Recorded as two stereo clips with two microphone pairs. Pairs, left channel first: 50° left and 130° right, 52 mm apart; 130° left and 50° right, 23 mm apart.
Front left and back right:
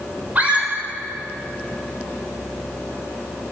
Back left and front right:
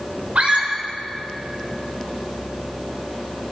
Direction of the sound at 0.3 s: 75° right.